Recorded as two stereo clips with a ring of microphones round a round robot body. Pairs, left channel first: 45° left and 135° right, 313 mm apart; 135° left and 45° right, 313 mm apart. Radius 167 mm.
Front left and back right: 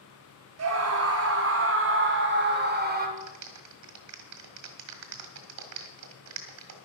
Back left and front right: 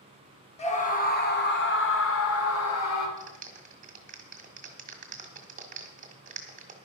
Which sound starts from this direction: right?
A clap, at 3.2 s.